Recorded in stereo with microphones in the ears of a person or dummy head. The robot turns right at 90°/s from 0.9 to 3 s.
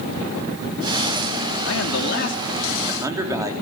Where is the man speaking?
75° left, 3.5 m; by 3.5 s 160° right, 3.5 m.